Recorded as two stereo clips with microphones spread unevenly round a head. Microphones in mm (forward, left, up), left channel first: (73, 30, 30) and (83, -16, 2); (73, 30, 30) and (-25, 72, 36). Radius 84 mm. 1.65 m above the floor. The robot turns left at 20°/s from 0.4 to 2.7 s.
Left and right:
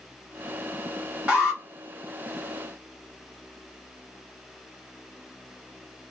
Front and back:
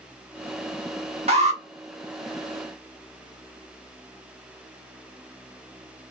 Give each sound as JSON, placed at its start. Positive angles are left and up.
{"t": 1.3, "sound": "an alarm", "azimuth_deg": -155, "distance_m": 0.6}